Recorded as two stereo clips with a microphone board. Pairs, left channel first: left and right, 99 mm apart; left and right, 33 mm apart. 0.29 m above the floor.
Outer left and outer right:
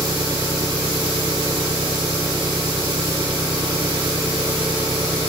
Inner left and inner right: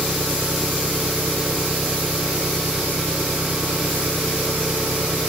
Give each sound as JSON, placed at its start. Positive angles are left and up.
{"t": 0.0, "sound": "an engine running", "side_deg": -55}